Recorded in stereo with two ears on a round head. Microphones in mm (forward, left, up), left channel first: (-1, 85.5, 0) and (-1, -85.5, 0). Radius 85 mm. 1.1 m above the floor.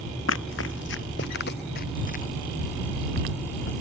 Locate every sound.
0.3 s running footsteps: 75° left (ahead or behind); by 2.2 s 45° left (ahead or behind)